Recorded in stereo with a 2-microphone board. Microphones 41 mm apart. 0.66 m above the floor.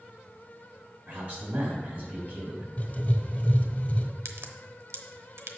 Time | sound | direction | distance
1.1 | a man speaking | 45° right (ahead or behind) | 4 m
2.8 | writing | 40° left (ahead or behind) | 1.1 m
4.2 | a crack | 75° right (ahead or behind) | 0.8 m